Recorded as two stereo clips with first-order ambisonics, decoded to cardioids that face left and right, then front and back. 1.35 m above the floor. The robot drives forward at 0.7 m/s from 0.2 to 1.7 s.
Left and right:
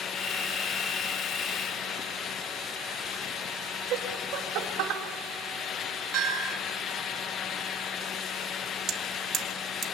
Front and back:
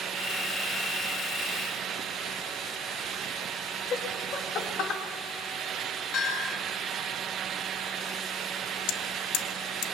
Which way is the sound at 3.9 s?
55° right.